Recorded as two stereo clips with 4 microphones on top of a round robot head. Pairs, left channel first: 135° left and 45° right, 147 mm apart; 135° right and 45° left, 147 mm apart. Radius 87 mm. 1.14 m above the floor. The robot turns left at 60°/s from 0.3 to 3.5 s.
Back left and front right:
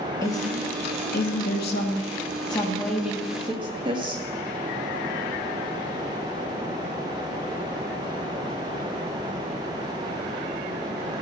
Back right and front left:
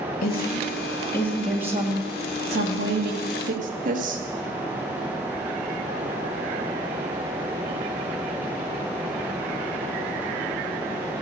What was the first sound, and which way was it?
A woman speaking, 155° right.